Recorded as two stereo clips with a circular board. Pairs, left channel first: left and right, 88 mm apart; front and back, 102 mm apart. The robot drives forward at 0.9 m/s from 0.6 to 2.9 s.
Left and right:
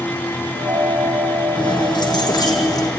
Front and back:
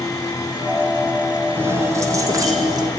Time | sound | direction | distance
1.6 | keys jangling | 115° left | 3.5 m